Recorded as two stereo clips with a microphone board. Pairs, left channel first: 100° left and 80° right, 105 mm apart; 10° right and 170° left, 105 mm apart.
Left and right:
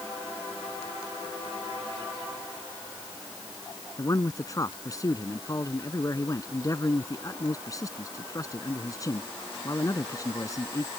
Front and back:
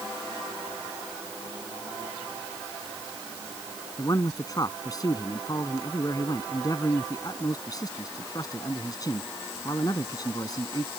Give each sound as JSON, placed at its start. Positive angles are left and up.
{"t": 4.0, "sound": "a man speaking", "azimuth_deg": 45}